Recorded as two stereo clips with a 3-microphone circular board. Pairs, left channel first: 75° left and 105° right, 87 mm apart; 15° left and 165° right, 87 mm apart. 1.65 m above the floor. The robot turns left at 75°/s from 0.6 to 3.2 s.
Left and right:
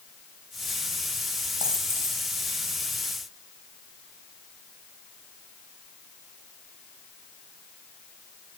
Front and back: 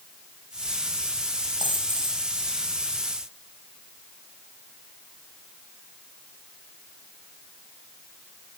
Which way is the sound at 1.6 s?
140° right.